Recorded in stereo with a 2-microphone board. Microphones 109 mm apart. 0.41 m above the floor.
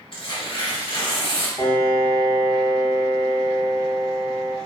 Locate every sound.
0.1 s tearing paper: 55° left (ahead or behind), 0.7 m
1.6 s a piano: 40° left (ahead or behind), 0.9 m